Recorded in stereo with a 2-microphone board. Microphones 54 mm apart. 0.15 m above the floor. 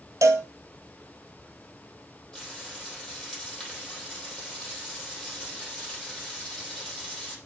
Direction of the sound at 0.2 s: 75° right (ahead or behind).